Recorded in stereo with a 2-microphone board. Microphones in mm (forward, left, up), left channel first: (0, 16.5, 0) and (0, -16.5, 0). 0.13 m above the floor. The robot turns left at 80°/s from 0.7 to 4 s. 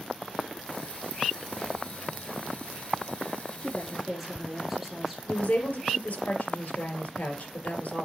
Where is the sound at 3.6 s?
30° left, 3.5 m; by 5.2 s 5° right, 3.5 m.